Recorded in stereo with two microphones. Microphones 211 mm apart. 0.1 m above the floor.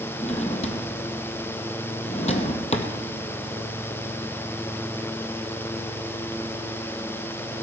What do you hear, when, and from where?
0.2 s a drawer: 30° left (ahead or behind), 1.8 m